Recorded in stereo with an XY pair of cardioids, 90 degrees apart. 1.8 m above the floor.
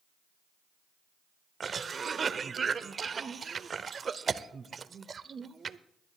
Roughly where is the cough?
Ahead right.